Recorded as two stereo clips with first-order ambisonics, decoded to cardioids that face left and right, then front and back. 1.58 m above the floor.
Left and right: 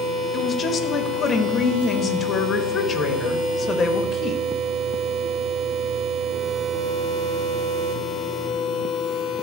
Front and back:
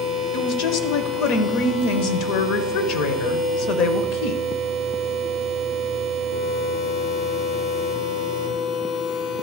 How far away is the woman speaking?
About 0.9 m.